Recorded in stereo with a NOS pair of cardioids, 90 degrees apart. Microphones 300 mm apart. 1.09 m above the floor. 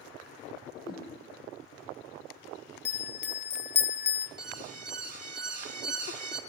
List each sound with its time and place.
0.8 s a whoosh: 30° left, 7.5 m
2.9 s a bell: 35° left, 0.9 m
4.4 s an alarm: 30° right, 2.5 m